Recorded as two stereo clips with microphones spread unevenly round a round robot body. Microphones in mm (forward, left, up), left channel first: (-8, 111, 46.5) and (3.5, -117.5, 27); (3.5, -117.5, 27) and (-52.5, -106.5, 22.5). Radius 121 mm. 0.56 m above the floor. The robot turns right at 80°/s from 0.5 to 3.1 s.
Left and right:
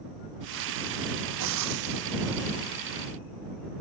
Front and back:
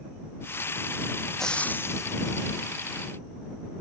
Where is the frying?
95° right; by 2.8 s 20° left.